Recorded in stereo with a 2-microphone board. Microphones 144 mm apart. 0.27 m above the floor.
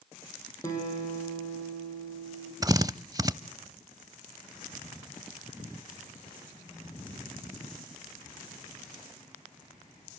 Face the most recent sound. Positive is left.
turn(degrees=-25)  # may be behind; listen again after turning